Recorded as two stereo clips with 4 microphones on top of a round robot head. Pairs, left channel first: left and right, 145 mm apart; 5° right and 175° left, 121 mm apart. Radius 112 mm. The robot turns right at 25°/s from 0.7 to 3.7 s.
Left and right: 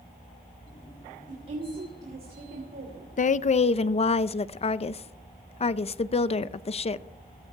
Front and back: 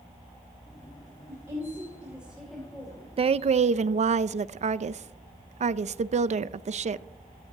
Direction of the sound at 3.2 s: 125° left.